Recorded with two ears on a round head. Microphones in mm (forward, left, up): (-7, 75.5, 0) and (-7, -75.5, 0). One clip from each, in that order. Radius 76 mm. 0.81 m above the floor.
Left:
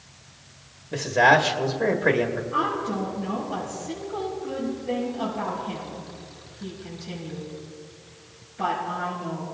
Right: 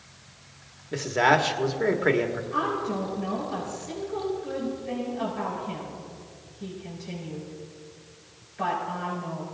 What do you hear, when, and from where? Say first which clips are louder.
0.9 s a man speaking: left 4 dB; 10° right (ahead or behind), 1.4 m
2.5 s a woman speaking: left 1 dB; 50° right (ahead or behind), 5.5 m